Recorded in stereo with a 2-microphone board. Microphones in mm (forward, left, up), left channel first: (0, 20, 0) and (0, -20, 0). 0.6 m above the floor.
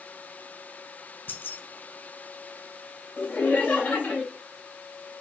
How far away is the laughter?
About 3 m.